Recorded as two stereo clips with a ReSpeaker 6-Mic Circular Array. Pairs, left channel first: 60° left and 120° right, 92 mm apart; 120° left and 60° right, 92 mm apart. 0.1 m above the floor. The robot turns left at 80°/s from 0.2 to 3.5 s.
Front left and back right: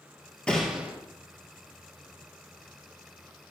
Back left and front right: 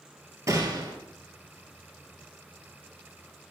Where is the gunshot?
15° right, 2.0 m; by 0.9 s 55° right, 2.0 m.